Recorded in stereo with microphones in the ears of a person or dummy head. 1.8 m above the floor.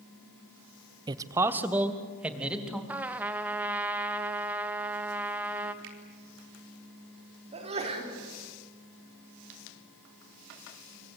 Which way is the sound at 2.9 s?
10° right (ahead or behind).